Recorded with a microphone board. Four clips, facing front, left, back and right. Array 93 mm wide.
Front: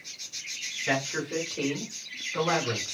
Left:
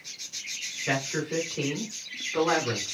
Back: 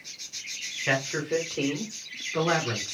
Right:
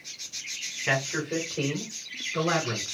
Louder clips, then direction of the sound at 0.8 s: Right 1 dB, back 2 dB; 140° right.